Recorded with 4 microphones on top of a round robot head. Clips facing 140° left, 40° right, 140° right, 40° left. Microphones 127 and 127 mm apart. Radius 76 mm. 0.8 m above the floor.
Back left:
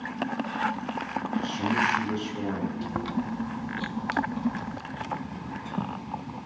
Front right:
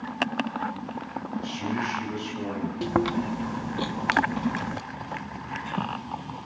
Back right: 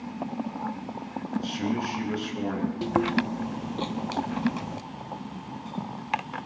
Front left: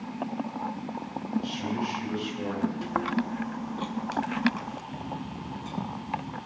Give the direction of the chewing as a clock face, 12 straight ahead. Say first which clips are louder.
Front right 5 dB, back right 4 dB; 3 o'clock.